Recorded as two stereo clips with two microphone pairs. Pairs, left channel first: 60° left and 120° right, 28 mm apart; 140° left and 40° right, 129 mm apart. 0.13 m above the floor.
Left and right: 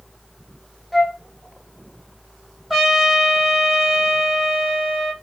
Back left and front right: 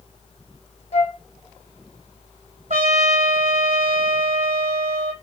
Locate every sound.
0.9 s a flute: 145° left, 0.5 m
2.7 s a trumpet: 35° right, 0.9 m